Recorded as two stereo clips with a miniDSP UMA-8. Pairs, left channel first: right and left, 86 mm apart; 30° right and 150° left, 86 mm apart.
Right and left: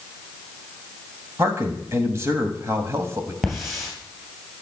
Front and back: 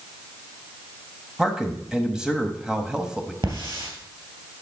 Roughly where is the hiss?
Behind.